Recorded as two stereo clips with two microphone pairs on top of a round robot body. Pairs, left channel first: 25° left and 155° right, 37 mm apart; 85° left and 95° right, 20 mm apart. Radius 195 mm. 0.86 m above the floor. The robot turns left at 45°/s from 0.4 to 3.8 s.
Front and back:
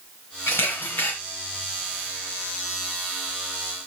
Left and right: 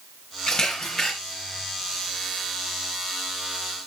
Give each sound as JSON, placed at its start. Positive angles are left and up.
{"t": 0.5, "sound": "a camera shutter", "azimuth_deg": 15, "distance_m": 0.9}